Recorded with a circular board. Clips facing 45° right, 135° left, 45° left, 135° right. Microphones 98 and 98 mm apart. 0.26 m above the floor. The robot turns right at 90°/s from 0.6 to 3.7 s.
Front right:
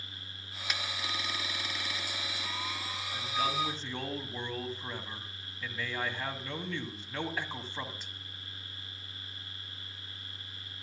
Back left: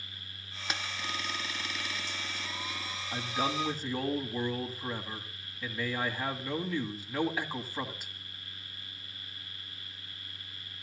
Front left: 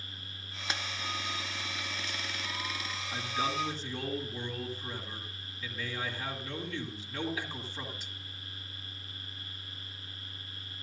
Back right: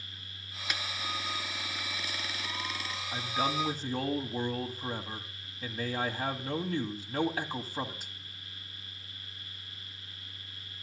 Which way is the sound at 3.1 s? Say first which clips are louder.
Back left 1 dB, back right 2 dB; 165° left.